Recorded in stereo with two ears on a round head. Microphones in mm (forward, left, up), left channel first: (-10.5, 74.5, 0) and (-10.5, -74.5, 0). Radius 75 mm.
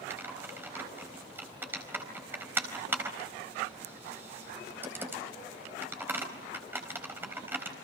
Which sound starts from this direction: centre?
Typing on a keyboard, at 0.1 s.